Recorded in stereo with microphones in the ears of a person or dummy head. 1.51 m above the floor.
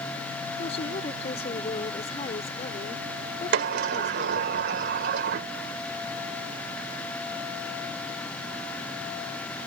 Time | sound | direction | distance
0.6 | a woman speaking | 40° left (ahead or behind) | ?
3.5 | a sliding door | 60° right (ahead or behind) | ?